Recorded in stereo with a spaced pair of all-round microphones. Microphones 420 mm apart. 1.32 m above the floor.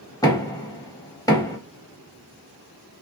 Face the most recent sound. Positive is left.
turn(degrees=10)  # may be behind; listen again after turning